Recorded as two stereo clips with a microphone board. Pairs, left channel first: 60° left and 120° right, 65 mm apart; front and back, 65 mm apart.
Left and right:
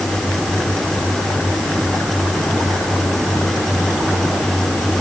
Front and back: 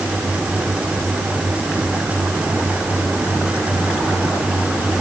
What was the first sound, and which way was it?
Only background noise.